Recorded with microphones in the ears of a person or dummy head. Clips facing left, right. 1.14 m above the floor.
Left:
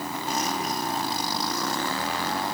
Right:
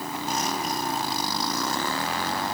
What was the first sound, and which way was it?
Only background noise.